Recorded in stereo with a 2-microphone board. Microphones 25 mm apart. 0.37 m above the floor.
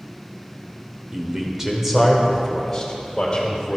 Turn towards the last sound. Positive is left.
turn(degrees=25)  # may be behind; listen again after turning